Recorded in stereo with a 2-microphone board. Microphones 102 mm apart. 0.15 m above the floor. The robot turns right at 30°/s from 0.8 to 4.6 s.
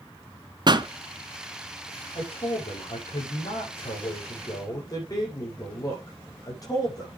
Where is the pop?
45° right (ahead or behind), 0.8 m.